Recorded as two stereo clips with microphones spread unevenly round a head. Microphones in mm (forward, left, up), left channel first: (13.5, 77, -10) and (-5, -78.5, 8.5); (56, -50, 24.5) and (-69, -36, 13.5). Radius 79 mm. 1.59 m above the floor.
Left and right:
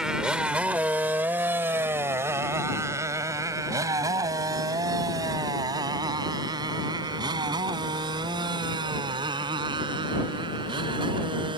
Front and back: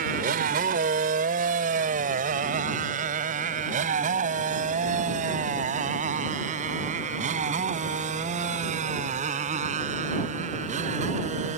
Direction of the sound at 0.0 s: Straight behind.